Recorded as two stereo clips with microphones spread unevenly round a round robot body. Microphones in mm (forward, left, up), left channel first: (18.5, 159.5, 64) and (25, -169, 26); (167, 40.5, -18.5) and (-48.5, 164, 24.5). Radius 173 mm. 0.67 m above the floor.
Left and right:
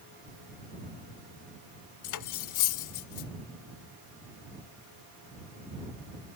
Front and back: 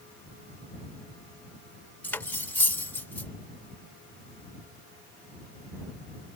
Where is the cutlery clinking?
55° left.